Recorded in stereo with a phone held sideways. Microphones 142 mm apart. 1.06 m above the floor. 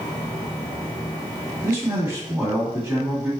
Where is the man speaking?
20° right (ahead or behind), 2.0 m.